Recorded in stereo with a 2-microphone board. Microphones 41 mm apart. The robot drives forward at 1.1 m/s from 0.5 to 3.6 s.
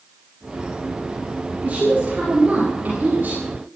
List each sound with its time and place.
1.6 s a woman speaking: 40° right (ahead or behind), 7 m; by 3.4 s 50° right (ahead or behind), 5.5 m